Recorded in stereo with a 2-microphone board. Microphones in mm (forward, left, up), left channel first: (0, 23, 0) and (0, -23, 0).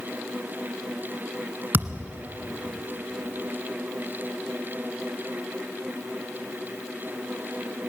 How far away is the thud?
About 1.4 m.